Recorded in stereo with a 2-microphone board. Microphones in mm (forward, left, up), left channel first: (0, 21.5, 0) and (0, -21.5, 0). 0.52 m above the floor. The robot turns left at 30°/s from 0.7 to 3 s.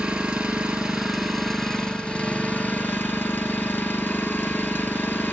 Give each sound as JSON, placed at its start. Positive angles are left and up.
{"t": 0.0, "sound": "an engine running", "azimuth_deg": -160, "distance_m": 4.0}